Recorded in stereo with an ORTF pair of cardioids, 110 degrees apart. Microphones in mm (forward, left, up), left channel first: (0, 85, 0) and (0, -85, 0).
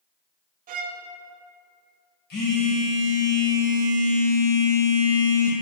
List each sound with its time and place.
0.7 s a violin: 55° right, 0.6 m
2.3 s a phone buzzing: 70° left, 2 m